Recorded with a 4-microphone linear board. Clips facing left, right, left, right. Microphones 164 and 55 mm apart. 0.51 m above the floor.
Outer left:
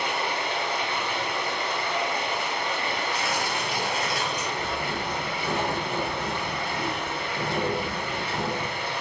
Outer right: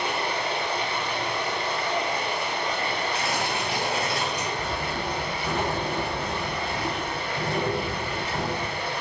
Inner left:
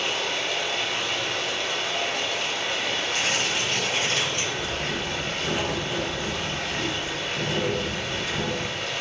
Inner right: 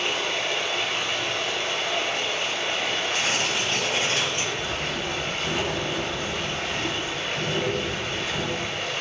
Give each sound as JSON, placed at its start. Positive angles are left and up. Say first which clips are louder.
{"t": 0.0, "sound": "running water", "louder": "outer right 1 dB, inner right 1 dB", "side_deg": -30, "distance_m": 1.4}
{"t": 3.1, "sound": "tearing paper", "louder": "outer right 1 dB, inner right 1 dB", "side_deg": -30, "distance_m": 1.6}
{"t": 4.5, "sound": "writing", "louder": "even, even", "side_deg": 20, "distance_m": 1.4}